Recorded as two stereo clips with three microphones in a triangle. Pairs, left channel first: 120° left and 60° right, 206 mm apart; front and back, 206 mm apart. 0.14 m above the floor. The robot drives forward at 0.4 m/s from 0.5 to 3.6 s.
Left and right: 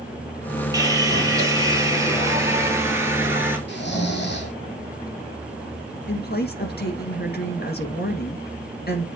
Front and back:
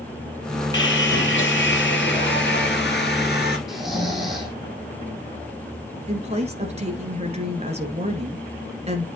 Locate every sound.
0.7 s sawing: 10° left, 3 m; by 3.6 s 20° left, 2 m
3.7 s snoring: 90° left, 3 m
6.1 s a woman speaking: 130° left, 2 m